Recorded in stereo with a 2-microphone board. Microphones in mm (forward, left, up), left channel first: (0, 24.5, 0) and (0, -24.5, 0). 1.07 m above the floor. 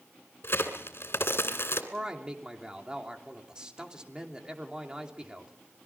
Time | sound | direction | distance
0.4 | a crack | 60° left (ahead or behind) | 2.5 m
1.9 | a man speaking | 15° right (ahead or behind) | 3 m